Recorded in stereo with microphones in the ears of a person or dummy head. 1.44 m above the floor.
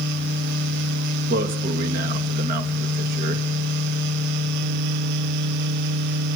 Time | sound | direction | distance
1.3 | a man speaking | 45° right (ahead or behind) | 2.5 m